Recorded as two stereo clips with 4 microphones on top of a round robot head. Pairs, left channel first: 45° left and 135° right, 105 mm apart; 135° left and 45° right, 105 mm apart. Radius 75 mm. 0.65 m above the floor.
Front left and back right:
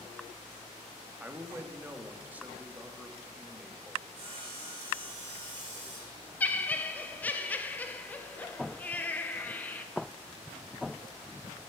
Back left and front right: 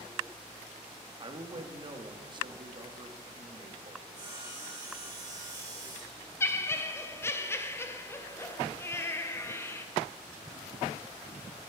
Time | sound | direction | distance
1.2 | a man speaking | 60° right | 1.2 m
4.1 | sawing | 95° right | 3 m
6.4 | laughter | 100° left | 0.7 m